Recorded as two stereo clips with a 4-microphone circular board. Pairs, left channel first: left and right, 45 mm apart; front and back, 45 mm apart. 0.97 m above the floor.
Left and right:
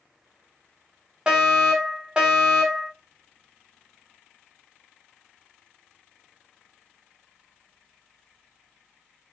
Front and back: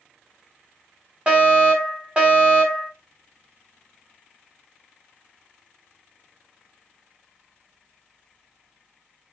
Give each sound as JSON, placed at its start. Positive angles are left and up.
{"t": 1.3, "sound": "a fire alarm", "azimuth_deg": -145, "distance_m": 1.3}